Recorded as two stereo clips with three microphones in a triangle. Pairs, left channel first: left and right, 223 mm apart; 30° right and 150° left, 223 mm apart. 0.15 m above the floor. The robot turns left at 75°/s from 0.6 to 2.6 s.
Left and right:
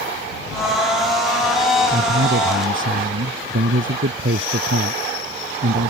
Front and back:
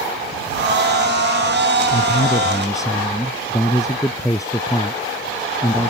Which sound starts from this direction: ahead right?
A man speaking, at 1.9 s.